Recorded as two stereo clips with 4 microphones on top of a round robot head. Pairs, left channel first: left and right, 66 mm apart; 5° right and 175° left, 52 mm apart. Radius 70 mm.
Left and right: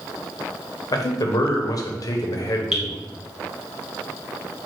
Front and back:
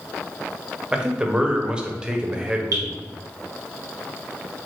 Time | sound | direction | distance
0.9 | a man speaking | 105° left | 0.6 m
2.7 | dripping | 170° right | 0.9 m